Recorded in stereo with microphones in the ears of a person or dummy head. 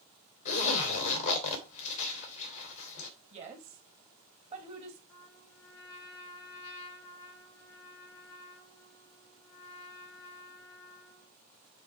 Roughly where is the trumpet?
Left.